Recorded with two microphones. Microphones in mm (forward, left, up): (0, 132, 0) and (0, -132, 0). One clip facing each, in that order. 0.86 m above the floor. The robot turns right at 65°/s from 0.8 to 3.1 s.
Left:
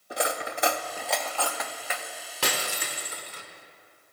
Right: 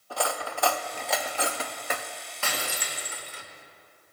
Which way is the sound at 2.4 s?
95° left.